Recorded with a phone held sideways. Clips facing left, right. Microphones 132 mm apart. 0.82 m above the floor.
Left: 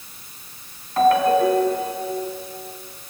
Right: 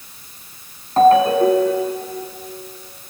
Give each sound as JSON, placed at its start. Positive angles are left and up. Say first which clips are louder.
{"t": 1.0, "sound": "a ringtone", "louder": "right 4 dB", "side_deg": -30, "distance_m": 4.0}